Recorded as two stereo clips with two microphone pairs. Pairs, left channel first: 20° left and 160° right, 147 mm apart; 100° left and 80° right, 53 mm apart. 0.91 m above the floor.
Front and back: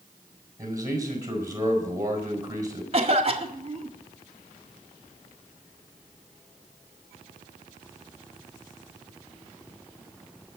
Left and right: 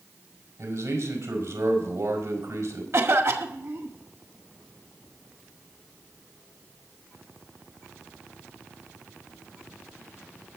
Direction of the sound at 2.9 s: 110° right.